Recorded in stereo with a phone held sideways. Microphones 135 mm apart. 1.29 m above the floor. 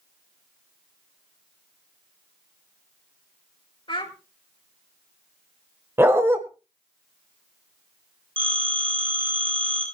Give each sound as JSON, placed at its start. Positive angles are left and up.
{"t": 3.9, "sound": "a child speaking", "side_deg": 40, "distance_m": 2.5}
{"t": 6.0, "sound": "a dog barking", "side_deg": -20, "distance_m": 1.6}
{"t": 8.4, "sound": "a phone ringing", "side_deg": -40, "distance_m": 6.5}